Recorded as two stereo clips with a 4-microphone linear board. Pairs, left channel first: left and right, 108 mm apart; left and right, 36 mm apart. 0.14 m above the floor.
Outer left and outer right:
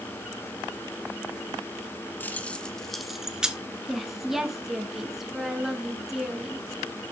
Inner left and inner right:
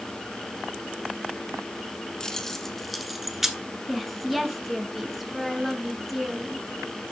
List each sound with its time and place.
2.2 s keys jangling: 15° left (ahead or behind), 1.0 m; by 3.6 s 10° right (ahead or behind), 1.4 m
3.9 s a woman speaking: 5° right (ahead or behind), 1.5 m